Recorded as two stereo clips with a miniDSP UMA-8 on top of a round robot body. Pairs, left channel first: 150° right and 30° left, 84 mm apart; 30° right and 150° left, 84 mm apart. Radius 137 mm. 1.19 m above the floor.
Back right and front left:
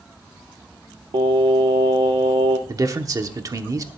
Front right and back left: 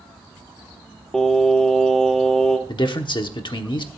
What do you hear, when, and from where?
1.1 s singing: 55° left, 1.3 m
2.7 s a man speaking: 15° right, 1.1 m